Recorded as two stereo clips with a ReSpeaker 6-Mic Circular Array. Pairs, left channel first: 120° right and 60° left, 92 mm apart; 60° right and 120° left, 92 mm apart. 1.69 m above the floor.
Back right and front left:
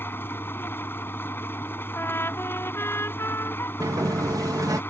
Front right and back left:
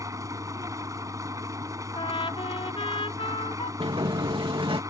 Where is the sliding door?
110° left.